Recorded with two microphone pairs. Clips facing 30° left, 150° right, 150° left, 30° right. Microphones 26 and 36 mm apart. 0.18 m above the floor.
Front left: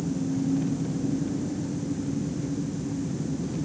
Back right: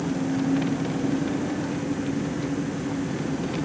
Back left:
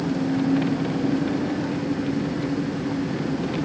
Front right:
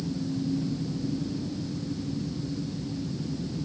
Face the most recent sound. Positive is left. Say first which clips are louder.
# back right 3 dB, back left 8 dB
turn(degrees=170)